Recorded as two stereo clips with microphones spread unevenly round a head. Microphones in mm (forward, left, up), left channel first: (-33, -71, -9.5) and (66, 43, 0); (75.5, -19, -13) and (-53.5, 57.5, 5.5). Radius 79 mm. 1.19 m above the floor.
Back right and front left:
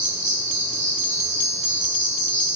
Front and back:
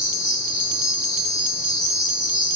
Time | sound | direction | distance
0.0 | an insect | 25° left | 1.4 m